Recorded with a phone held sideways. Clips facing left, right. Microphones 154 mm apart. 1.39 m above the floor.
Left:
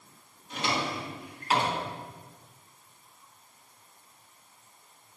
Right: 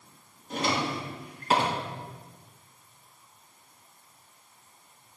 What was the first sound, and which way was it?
A drawer, 40° right (ahead or behind).